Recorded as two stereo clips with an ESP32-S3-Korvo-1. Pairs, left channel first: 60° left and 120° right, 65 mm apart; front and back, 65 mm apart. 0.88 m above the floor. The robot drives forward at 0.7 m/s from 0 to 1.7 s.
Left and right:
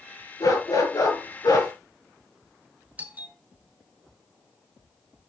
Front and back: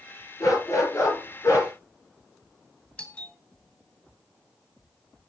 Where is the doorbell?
65° right, 1.2 m.